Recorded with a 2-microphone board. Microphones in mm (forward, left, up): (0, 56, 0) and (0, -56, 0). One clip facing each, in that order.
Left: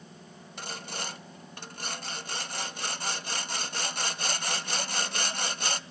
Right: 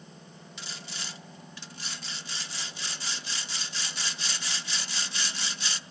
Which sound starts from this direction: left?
Sawing, at 0.6 s.